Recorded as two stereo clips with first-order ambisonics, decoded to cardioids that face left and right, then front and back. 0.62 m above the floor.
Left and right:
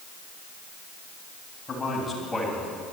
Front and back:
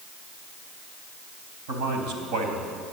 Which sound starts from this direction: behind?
A man speaking, at 1.7 s.